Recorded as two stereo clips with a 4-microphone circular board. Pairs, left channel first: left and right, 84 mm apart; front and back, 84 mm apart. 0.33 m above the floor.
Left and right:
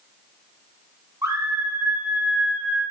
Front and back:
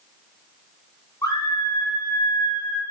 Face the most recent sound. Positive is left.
turn(degrees=0)